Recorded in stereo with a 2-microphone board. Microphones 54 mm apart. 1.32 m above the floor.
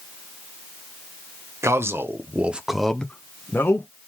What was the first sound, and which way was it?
A man speaking, 55° right (ahead or behind).